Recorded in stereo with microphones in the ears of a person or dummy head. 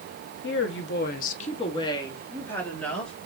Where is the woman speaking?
55° left (ahead or behind), 0.9 m; by 3.1 s 5° left (ahead or behind), 2 m.